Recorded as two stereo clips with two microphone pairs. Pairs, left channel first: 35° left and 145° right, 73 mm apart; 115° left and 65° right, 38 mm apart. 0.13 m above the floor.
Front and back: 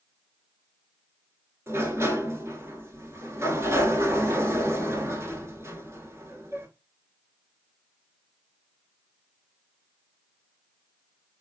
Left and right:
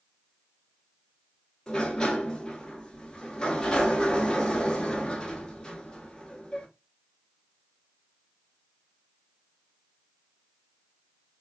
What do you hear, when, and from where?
1.7 s a sliding door: 175° left, 0.6 m